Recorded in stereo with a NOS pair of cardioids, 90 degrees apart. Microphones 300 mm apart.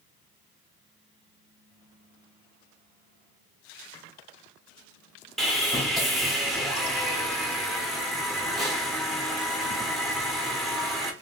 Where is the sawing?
Straight ahead, 1.3 m.